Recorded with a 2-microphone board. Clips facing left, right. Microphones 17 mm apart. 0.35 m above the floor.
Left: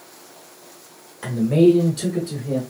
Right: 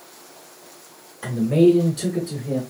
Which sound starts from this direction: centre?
A man speaking, at 1.2 s.